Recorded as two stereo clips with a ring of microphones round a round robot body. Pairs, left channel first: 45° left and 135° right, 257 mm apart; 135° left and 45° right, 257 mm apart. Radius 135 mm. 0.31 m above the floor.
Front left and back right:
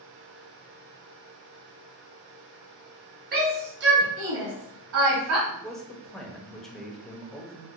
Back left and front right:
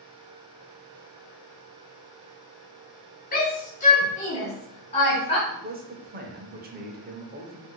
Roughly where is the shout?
Behind.